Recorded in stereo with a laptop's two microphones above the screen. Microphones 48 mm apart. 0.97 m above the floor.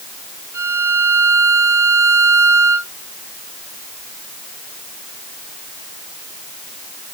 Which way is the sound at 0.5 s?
60° right (ahead or behind).